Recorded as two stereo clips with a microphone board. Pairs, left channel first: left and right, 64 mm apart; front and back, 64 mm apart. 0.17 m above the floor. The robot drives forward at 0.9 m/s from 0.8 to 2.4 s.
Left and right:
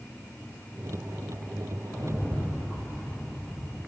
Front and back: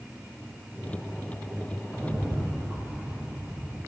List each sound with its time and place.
1.9 s a rattle: 110° left, 2 m; by 3.8 s 120° left, 2.5 m